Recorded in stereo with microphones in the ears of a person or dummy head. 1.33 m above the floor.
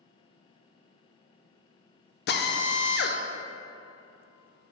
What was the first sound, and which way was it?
A drill, 55° left (ahead or behind).